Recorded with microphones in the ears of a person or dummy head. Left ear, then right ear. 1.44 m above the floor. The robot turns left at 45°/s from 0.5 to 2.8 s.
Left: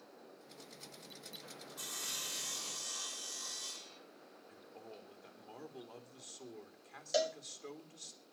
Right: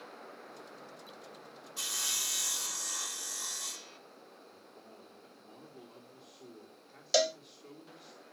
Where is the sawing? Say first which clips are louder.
Right 8 dB; 70° right, 1.3 m; by 4.0 s 115° right, 1.3 m.